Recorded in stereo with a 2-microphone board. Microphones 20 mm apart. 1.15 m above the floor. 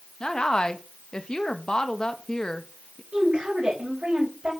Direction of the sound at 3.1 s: 50° right (ahead or behind).